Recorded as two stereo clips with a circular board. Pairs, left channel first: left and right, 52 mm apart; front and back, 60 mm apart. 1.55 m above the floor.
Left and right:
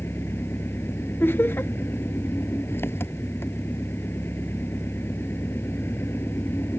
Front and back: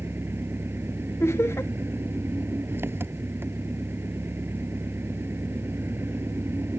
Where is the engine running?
130° left.